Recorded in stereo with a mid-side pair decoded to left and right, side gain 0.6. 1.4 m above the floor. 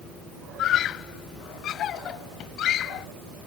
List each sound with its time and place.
0.6 s a scream: 55° left